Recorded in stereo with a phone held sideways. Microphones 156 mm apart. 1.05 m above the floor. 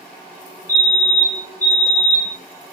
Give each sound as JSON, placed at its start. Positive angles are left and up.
{"t": 0.7, "sound": "a fire alarm", "side_deg": 55, "distance_m": 6.5}